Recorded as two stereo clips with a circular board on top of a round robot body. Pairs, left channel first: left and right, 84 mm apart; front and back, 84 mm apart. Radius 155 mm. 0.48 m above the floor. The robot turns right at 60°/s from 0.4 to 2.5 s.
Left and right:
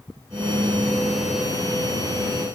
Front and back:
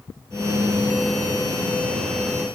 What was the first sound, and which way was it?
Only background noise.